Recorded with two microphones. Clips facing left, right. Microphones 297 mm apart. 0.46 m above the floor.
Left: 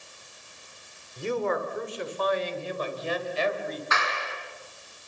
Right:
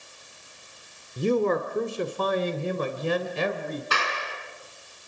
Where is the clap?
40° right (ahead or behind), 5 m.